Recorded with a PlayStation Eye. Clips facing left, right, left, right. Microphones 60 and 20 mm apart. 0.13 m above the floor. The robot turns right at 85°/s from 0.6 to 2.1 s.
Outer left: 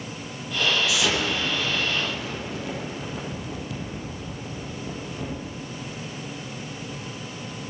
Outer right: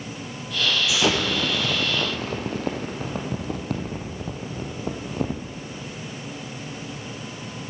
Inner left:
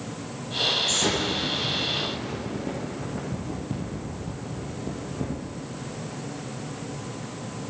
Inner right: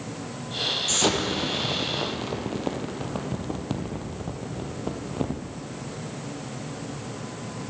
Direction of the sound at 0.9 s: 20° right (ahead or behind).